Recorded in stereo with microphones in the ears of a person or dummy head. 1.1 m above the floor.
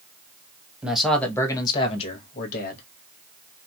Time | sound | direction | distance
0.8 | a man speaking | 10° right (ahead or behind) | 0.8 m